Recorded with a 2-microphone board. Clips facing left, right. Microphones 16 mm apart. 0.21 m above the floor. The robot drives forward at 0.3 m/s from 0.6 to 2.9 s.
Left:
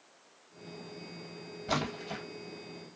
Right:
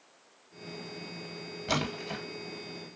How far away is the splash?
About 2.5 m.